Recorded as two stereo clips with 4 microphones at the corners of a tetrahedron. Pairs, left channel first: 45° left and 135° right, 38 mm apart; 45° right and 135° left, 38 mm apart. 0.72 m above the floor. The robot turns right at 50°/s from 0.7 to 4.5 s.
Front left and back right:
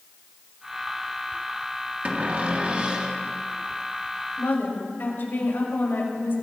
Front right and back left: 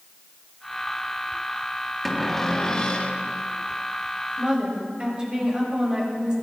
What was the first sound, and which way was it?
A cupboard door, 135° right.